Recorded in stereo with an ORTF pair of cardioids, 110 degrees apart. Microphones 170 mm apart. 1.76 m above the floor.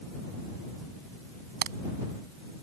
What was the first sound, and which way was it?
A crack, 65° right.